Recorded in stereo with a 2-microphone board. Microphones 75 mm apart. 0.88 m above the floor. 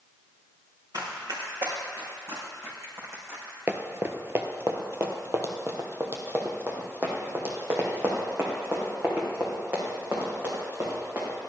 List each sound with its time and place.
0.9 s running footsteps: 65° right (ahead or behind), 4.5 m; by 3.6 s 40° right (ahead or behind), 3.5 m
3.7 s running footsteps: 30° right (ahead or behind), 0.9 m; by 11.3 s 25° right (ahead or behind), 5 m